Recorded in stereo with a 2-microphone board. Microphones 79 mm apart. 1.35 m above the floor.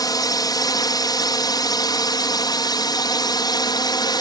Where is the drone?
55° left (ahead or behind); by 4.2 s 60° left (ahead or behind).